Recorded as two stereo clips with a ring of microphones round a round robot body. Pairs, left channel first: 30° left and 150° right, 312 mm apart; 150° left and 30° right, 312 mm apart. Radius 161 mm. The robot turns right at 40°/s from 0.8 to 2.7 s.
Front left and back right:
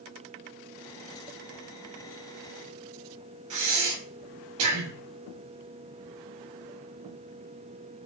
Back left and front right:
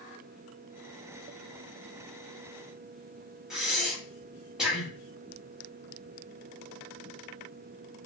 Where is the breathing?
120° right, 0.7 m.